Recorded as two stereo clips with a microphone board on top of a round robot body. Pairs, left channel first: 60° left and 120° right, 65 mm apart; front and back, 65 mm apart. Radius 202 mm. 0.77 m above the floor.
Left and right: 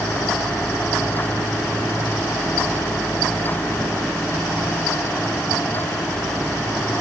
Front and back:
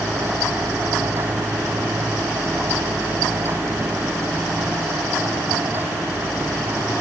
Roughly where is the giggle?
No giggle in this recording.